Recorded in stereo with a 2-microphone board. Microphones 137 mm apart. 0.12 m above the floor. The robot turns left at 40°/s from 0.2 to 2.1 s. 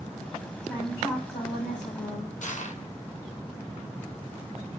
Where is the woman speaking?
160° left, 6.5 m; by 2.3 s 105° left, 6.5 m.